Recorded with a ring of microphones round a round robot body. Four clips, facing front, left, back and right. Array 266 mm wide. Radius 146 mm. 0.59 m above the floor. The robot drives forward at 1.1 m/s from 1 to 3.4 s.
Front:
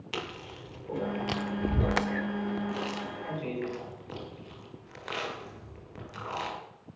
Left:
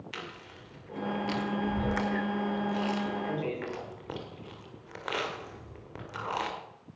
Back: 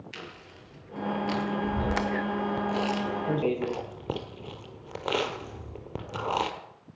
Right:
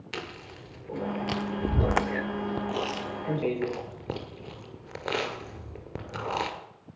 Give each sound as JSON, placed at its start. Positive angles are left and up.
{"t": 0.1, "sound": "chewing", "azimuth_deg": -35, "distance_m": 1.6}